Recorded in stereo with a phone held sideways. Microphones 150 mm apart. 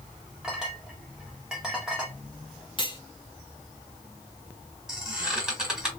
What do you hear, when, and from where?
0.4 s a clink: 5° right (ahead or behind), 1.3 m
2.8 s cutlery clinking: 30° left (ahead or behind), 0.7 m
4.9 s a squeak: 5° right (ahead or behind), 1.8 m